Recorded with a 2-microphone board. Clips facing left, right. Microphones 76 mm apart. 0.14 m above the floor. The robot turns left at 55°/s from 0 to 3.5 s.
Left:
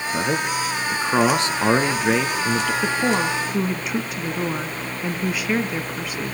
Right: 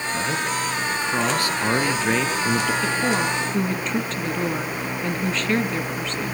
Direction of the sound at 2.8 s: 20° left (ahead or behind).